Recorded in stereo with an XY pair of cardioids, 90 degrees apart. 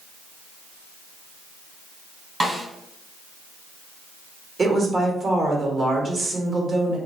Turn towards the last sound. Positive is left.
turn(degrees=-40)